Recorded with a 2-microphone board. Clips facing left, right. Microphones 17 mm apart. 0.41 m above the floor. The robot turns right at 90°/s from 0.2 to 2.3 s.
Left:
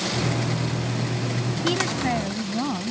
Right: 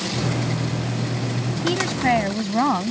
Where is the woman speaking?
175° left; by 2.9 s 125° right.